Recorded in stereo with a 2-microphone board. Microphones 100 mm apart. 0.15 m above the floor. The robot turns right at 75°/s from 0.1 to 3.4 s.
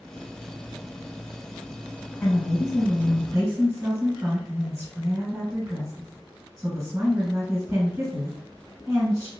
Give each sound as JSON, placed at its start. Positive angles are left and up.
{"t": 2.2, "sound": "a woman speaking", "azimuth_deg": 155, "distance_m": 1.6}